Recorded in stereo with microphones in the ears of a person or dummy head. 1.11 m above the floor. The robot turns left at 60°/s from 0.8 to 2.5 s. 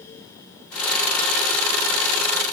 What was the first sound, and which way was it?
Only background noise.